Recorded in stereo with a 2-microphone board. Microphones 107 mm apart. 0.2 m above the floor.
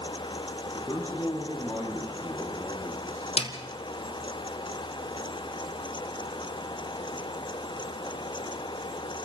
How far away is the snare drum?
About 1.8 m.